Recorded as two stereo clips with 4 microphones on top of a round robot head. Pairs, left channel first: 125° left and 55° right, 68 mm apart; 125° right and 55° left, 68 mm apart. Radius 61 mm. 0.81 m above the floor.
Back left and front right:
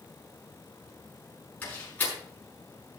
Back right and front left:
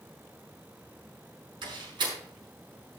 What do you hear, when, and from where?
1.6 s a door slam: 60° left, 5.5 m